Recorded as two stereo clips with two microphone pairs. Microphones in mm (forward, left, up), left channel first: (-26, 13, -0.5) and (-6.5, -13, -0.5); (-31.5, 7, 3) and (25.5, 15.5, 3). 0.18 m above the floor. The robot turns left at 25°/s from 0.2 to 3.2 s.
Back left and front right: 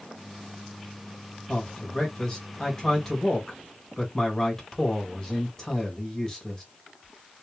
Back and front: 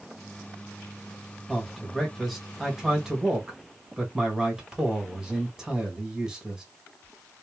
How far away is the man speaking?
About 1.5 m.